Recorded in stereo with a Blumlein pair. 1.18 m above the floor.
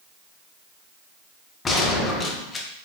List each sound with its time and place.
1.6 s a gunshot: 20° left, 0.5 m